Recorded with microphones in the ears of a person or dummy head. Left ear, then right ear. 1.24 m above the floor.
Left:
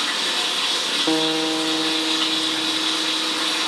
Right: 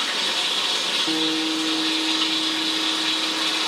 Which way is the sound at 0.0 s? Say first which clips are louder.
Left 1 dB; centre (ahead or behind).